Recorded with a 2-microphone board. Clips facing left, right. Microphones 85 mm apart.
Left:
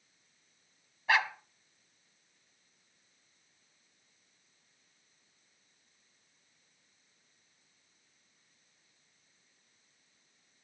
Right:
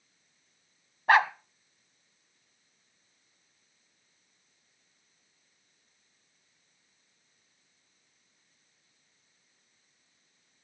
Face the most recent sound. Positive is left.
turn(degrees=-50)  # may be behind; listen again after turning